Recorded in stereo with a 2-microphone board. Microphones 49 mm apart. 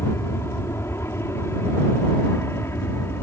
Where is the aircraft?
65° left (ahead or behind); by 3.2 s 60° left (ahead or behind).